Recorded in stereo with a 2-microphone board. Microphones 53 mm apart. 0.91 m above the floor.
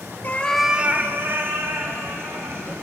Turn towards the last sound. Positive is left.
turn(degrees=-55)  # may be behind; listen again after turning